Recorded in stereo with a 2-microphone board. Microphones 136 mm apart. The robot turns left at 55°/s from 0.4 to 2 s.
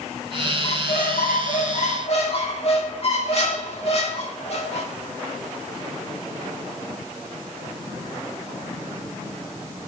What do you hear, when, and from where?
0.6 s a squeak: 125° left, 2.0 m; by 4.9 s 50° left, 2.0 m